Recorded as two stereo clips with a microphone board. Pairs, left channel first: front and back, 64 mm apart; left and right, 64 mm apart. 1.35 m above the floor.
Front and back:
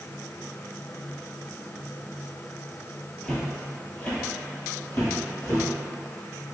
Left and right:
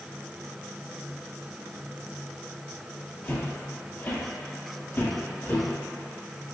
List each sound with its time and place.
3.2 s footsteps: 70° left, 1.5 m; by 5.6 s 45° left, 2.5 m